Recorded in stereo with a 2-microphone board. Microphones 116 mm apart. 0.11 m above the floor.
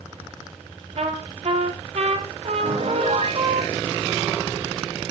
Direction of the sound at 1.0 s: 65° right (ahead or behind).